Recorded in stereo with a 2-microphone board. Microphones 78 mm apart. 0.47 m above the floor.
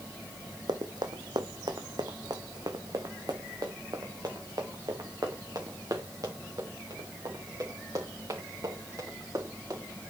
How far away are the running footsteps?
About 1.4 m.